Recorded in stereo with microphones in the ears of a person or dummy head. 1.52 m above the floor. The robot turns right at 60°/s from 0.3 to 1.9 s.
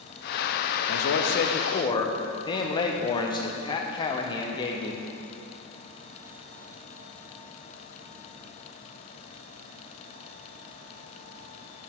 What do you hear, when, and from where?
0.9 s a man speaking: 90° left, 0.7 m; by 5.0 s 150° left, 0.7 m